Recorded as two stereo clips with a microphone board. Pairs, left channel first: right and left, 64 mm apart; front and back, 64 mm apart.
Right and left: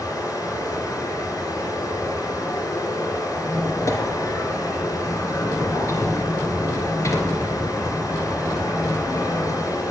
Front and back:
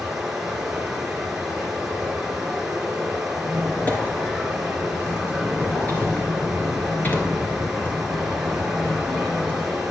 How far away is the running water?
About 2.5 m.